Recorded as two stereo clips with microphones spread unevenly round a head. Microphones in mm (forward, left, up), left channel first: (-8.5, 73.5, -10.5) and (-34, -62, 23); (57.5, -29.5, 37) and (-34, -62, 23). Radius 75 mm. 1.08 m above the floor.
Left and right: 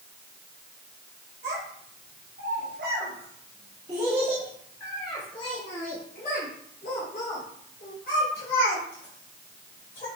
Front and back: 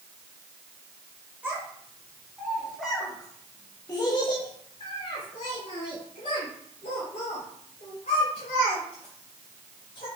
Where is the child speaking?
85° right, 3.5 m; by 10.1 s 60° left, 6.5 m.